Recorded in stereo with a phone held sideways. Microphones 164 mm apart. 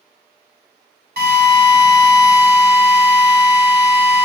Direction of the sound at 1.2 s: 80° right.